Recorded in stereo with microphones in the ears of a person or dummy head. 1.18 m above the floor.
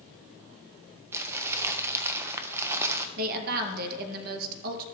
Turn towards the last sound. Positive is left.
turn(degrees=-50)  # may be behind; listen again after turning